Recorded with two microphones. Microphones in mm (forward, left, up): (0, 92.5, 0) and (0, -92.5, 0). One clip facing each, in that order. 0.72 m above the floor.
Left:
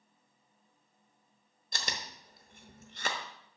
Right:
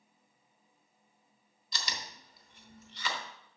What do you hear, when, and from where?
1.7 s chewing: 50° left (ahead or behind), 0.9 m